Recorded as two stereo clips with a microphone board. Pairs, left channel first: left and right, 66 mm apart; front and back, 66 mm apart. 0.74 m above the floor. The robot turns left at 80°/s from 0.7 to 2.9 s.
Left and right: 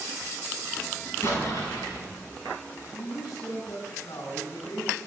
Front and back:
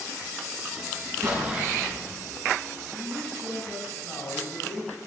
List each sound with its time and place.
1.2 s an explosion: 140° left, 5.5 m; by 2.0 s 75° left, 5.5 m
2.7 s a man speaking: 75° left, 7.5 m; by 4.9 s 60° left, 7.5 m